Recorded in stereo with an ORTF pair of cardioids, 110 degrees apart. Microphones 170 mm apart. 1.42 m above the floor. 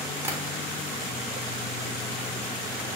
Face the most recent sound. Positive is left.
turn(degrees=-15)